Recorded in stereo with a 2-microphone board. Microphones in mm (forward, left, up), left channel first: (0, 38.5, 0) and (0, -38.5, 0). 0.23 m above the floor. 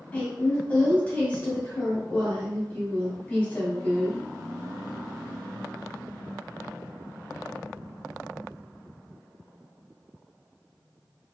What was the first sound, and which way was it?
A woman speaking, 20° left (ahead or behind).